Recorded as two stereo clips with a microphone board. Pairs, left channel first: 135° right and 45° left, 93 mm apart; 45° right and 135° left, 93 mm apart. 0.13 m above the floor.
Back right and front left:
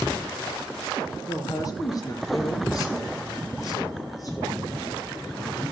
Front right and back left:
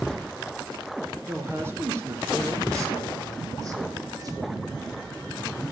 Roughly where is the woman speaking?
Behind.